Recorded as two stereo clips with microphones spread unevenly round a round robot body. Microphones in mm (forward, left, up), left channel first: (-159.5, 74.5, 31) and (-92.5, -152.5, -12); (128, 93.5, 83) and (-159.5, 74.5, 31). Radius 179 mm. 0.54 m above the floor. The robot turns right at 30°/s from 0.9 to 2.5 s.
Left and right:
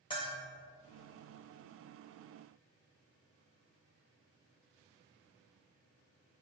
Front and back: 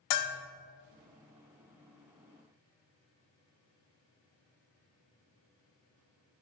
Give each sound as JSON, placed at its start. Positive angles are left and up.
{"t": 0.1, "sound": "a bell", "azimuth_deg": 30, "distance_m": 0.7}